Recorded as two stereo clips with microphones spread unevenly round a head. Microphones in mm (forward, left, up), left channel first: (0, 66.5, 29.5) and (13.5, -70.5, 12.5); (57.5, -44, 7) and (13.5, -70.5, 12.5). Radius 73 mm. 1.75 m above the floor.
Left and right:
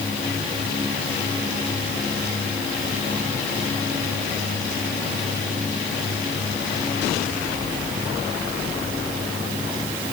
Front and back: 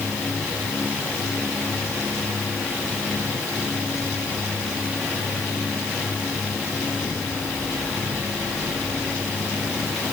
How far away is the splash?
I don't hear a splash.